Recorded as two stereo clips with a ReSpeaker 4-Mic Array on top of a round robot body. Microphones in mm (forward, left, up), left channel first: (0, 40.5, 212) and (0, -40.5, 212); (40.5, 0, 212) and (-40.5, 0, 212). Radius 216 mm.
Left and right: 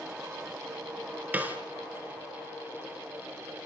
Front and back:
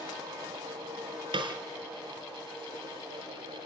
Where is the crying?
I don't hear crying.